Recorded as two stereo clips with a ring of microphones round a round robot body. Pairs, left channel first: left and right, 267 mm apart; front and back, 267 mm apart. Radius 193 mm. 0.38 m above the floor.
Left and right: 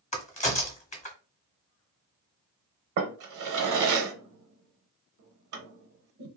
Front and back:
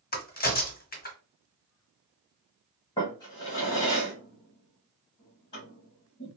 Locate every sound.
0.1 s a crack: 35° left, 1.1 m
3.0 s a drawer: 75° right, 0.7 m